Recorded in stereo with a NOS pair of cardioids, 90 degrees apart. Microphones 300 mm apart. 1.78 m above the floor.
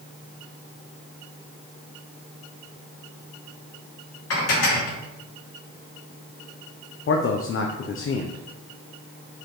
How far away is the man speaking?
About 1.1 m.